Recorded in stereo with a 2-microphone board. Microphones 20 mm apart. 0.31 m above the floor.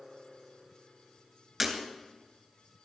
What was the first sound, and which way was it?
Breaking glass, 15° right (ahead or behind).